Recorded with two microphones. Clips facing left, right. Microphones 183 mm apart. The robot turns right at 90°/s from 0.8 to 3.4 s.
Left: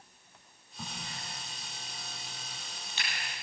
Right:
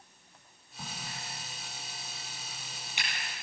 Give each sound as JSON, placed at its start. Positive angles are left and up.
{"t": 0.8, "sound": "a crack", "side_deg": 0, "distance_m": 9.0}